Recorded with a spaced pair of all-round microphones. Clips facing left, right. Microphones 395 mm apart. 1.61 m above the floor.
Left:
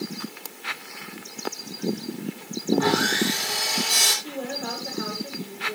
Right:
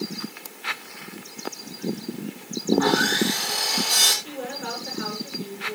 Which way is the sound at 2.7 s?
40° left (ahead or behind).